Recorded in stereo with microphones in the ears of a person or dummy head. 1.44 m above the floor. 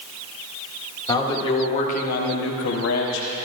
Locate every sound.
1.1 s a man speaking: 20° left (ahead or behind), 2 m; by 3.3 s 65° left (ahead or behind), 1.4 m